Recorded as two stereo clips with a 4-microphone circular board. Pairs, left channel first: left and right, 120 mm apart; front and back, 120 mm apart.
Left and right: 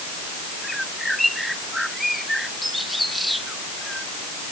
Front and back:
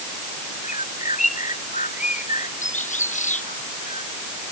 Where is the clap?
I don't hear a clap.